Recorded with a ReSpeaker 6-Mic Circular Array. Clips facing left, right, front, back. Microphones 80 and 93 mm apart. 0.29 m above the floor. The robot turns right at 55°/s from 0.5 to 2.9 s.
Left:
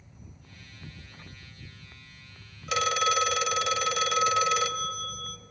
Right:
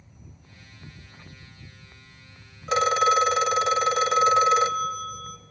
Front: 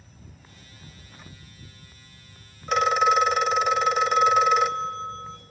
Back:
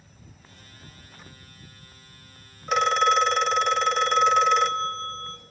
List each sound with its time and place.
2.7 s a phone ringing: 95° right, 0.6 m; by 5.4 s 80° right, 0.6 m